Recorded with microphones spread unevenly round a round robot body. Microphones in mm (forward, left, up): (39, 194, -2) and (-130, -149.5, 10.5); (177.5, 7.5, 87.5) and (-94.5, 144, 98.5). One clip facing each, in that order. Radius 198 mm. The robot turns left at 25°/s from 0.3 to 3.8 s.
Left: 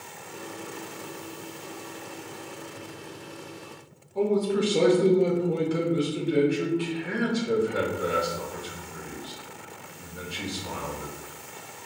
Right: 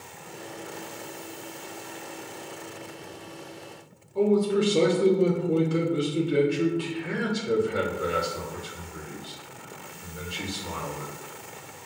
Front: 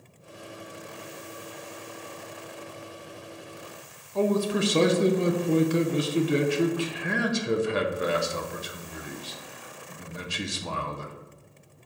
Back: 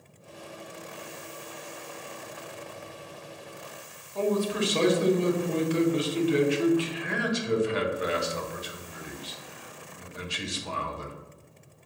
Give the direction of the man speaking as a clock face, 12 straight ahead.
1 o'clock.